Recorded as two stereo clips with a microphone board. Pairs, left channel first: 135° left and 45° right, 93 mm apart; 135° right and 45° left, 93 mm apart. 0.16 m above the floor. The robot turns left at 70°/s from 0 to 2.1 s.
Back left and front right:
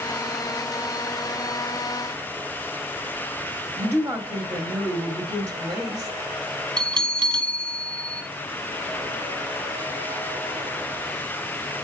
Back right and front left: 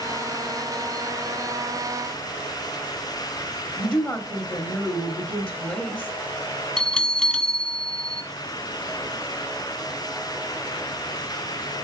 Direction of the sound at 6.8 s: 50° right.